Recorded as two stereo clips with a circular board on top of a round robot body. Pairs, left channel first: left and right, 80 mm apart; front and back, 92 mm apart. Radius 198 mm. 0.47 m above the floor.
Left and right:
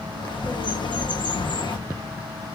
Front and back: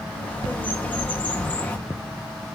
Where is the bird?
75° left, 1.1 m.